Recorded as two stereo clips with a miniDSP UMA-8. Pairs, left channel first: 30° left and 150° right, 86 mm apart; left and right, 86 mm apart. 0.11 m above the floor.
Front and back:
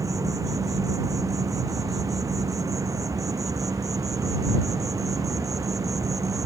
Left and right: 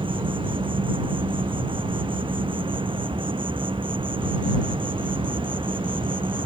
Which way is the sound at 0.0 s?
100° right.